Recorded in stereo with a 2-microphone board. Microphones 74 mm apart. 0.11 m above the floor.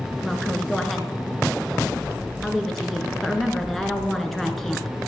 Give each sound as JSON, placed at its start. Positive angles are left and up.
{"t": 0.2, "sound": "a woman speaking", "side_deg": 5, "distance_m": 1.6}